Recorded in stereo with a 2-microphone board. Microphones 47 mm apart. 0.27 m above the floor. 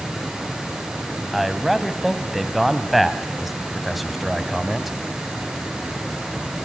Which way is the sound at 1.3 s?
Centre (ahead or behind).